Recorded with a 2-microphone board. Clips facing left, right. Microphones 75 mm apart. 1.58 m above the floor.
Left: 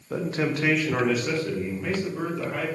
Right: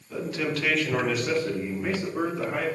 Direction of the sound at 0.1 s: 45° left (ahead or behind).